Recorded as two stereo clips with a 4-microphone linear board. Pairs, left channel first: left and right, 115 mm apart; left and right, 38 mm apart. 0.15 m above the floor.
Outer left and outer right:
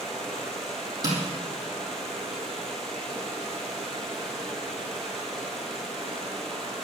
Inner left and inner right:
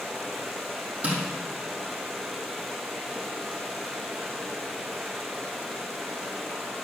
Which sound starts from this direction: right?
Tapping, at 1.0 s.